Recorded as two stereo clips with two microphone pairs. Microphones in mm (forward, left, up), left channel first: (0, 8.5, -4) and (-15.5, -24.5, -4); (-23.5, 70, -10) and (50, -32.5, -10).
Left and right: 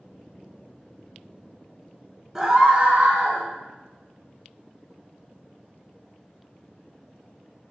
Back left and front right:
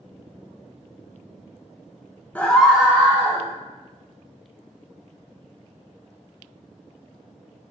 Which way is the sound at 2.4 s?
175° right.